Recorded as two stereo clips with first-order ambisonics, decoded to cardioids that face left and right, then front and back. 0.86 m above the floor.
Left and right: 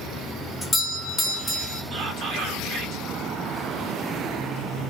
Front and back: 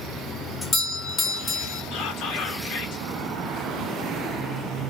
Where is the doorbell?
35° left, 0.7 m.